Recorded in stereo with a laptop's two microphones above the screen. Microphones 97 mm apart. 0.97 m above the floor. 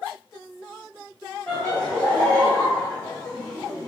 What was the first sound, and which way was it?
Laughter, 25° left (ahead or behind).